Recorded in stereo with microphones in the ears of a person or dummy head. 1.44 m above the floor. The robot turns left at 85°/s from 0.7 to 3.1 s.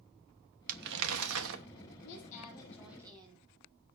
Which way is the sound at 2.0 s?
70° left.